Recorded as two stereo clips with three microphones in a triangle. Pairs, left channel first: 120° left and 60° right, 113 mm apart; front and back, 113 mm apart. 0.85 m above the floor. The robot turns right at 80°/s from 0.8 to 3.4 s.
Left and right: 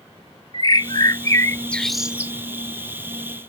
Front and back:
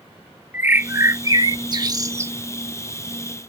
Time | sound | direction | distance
0.5 | a bird | 120° left | ?